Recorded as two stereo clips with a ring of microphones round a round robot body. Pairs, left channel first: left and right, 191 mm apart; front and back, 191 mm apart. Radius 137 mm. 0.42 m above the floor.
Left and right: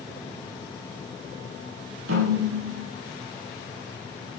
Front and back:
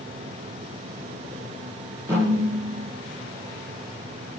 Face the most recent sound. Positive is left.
turn(degrees=-100)